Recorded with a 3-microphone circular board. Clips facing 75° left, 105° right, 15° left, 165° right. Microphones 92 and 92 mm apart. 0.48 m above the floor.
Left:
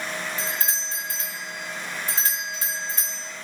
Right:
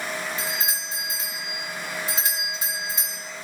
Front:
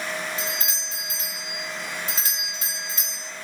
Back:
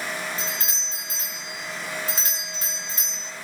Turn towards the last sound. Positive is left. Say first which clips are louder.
# even, front 1 dB
turn(degrees=-165)